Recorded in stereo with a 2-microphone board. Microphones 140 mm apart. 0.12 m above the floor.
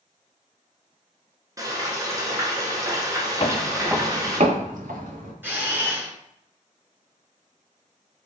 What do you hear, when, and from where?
1.6 s frying: 25° right (ahead or behind), 1.5 m
3.4 s footsteps: 40° left (ahead or behind), 1.0 m; by 5.3 s 75° right (ahead or behind), 2.5 m
5.4 s a camera shutter: 15° right (ahead or behind), 1.2 m